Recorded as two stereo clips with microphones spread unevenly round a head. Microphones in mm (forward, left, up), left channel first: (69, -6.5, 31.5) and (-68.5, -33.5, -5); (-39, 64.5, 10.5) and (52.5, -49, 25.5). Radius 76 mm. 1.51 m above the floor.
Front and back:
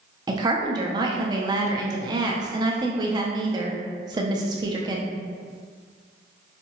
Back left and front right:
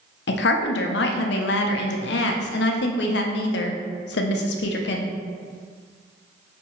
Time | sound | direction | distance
0.3 | a woman speaking | 125° left | 0.6 m